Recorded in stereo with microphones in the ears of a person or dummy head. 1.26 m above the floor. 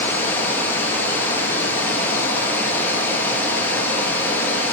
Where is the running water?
10° left (ahead or behind), 1.0 m.